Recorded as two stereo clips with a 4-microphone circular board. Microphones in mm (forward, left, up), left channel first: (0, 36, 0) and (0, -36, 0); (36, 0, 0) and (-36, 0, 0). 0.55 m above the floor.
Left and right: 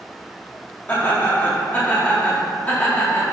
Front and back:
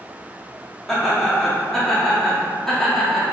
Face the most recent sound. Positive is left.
turn(degrees=75)